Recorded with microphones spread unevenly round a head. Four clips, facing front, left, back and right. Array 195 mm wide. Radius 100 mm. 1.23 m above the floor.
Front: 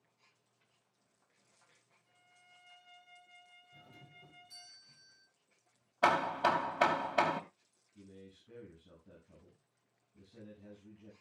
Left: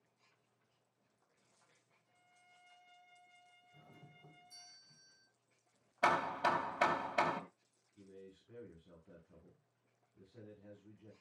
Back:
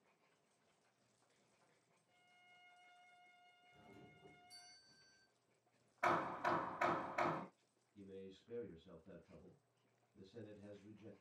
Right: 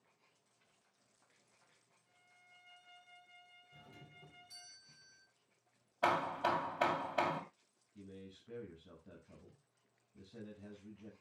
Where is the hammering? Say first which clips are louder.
Left 1 dB, front 9 dB; 5° left, 2.5 m.